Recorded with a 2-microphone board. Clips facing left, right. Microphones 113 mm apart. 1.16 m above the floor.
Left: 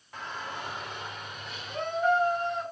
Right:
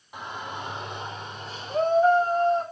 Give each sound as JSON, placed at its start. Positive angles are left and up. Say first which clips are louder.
{"t": 0.1, "sound": "a shout", "louder": "right 3 dB", "side_deg": -15, "distance_m": 2.5}